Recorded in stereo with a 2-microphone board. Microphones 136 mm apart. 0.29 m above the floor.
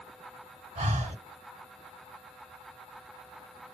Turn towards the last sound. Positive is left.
turn(degrees=-50)  # may be behind; listen again after turning